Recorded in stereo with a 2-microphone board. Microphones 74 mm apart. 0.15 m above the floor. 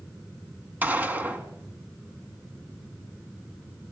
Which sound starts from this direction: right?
A gunshot, at 0.8 s.